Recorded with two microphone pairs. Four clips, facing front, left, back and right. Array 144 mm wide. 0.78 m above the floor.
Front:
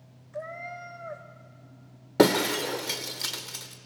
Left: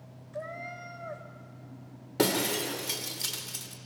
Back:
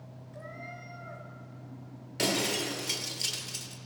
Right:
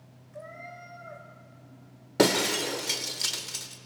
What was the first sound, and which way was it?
A cat meowing, 35° left.